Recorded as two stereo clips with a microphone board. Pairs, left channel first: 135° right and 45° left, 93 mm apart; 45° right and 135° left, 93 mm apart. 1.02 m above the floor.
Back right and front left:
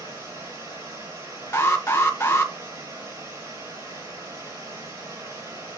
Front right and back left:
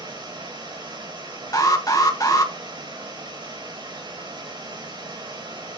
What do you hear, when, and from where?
0.0 s running water: 100° left, 5 m
1.5 s an alarm: 80° right, 1.9 m